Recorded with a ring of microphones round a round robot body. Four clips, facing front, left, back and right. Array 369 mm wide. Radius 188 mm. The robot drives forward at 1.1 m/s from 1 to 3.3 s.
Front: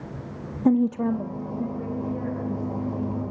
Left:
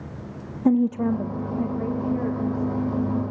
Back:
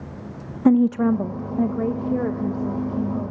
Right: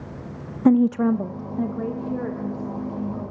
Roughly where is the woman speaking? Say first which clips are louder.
Right 3 dB, back 4 dB; behind right.